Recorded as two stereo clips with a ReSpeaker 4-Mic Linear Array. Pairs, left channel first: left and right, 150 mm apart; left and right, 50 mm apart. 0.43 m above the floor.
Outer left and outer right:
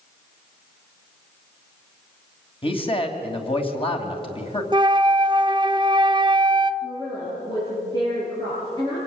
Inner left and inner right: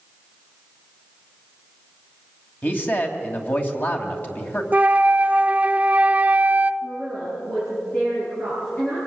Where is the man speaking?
35° left (ahead or behind), 2.5 m.